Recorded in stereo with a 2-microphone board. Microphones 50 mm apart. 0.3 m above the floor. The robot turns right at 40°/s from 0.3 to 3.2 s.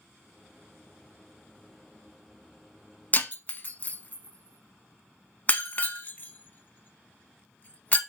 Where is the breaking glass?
35° left (ahead or behind), 0.6 m.